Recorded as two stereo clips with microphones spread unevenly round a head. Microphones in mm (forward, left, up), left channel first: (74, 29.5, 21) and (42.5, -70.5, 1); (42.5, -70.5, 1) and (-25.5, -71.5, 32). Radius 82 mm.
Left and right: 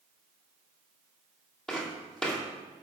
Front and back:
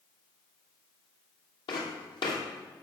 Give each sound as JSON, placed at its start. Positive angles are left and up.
{"t": 1.7, "sound": "footsteps", "azimuth_deg": -5, "distance_m": 2.5}